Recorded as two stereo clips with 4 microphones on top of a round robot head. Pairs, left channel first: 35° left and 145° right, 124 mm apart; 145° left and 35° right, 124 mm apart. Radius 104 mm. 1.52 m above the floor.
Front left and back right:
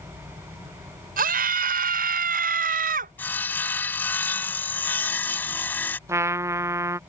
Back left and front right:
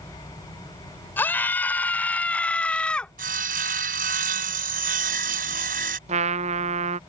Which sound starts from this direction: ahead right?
Sawing, at 3.2 s.